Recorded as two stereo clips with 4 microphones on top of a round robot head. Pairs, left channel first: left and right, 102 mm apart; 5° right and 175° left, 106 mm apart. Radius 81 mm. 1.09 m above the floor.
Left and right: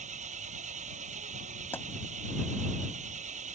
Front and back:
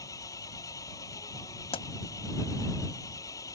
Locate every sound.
0.0 s an engine running: 75° right
1.7 s a pop: 15° left